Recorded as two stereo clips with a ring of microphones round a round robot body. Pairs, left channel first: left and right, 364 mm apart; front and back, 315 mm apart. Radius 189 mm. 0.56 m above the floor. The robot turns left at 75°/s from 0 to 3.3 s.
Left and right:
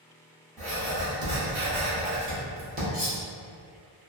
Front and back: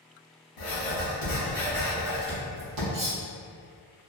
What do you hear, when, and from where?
0.6 s writing: 10° left, 0.9 m; by 2.8 s 160° right, 0.9 m
2.9 s cutlery clinking: 175° left, 1.3 m; by 3.2 s 155° left, 1.3 m